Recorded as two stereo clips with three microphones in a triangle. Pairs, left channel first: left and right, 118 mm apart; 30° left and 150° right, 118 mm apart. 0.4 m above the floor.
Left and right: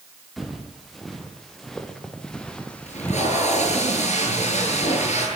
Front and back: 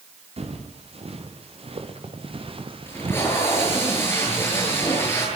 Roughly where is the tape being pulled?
Left.